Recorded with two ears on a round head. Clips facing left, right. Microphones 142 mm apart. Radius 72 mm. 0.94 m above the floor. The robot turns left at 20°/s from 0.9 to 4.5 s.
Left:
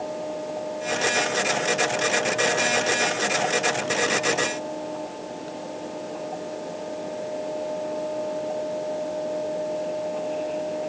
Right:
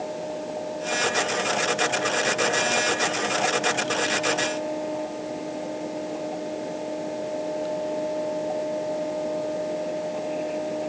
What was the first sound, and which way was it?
Only background noise.